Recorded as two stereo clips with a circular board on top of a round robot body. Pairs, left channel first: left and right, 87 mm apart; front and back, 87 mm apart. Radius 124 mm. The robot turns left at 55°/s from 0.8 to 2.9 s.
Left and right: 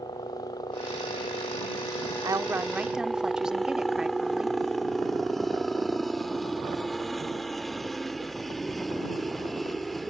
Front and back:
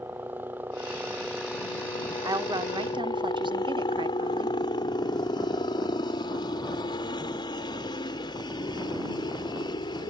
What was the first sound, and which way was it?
A helicopter, 115° left.